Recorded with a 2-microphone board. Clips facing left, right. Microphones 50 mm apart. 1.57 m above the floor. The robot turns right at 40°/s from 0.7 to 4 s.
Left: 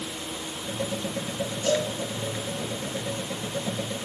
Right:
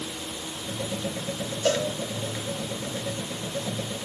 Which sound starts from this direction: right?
A cowbell, at 1.6 s.